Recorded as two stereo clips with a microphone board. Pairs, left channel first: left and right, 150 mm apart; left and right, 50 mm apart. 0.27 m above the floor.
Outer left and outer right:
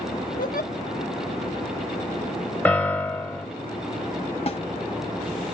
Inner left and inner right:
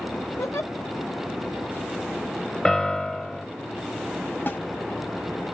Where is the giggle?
65° left (ahead or behind), 2.0 m.